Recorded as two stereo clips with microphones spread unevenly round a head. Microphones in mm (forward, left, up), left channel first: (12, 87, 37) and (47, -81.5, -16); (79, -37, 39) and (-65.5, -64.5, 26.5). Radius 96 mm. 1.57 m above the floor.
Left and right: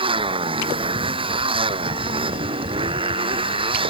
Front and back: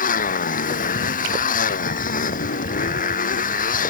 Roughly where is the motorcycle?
Ahead.